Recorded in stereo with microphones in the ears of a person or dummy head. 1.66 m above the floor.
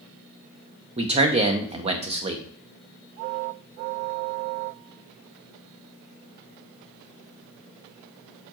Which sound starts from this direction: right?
A man speaking, at 1.0 s.